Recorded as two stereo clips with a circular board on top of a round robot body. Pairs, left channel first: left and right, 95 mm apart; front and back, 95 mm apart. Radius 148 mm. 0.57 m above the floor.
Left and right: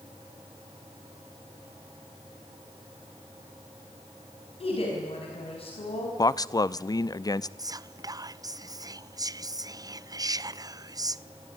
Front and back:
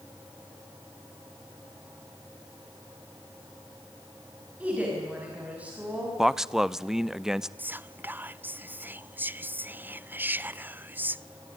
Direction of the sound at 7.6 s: 120° right.